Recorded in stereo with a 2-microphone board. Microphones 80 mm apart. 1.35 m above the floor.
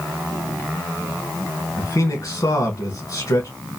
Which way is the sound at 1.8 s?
45° left (ahead or behind).